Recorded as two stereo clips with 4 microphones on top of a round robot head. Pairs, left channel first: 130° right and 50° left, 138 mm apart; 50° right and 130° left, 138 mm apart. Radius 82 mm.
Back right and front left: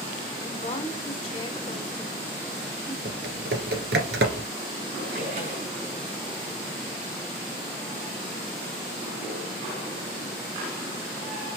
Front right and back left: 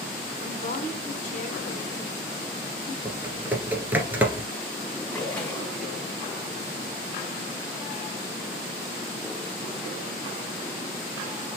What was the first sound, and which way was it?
A woman speaking, 85° right.